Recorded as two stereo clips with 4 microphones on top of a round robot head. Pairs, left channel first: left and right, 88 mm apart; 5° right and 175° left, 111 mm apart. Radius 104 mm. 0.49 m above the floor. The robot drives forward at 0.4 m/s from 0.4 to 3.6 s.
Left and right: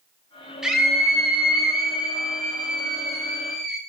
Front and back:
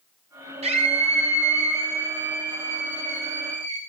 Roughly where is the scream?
Behind.